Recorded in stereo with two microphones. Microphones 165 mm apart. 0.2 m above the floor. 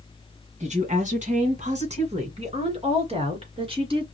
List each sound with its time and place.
0.6 s a woman speaking: 45° right (ahead or behind), 1.7 m; by 4.2 s 35° right (ahead or behind), 2.5 m